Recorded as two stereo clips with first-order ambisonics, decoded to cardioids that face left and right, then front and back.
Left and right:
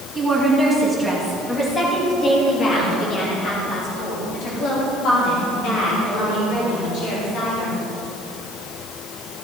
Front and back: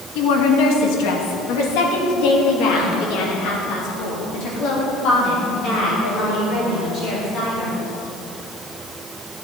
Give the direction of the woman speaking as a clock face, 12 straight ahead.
12 o'clock.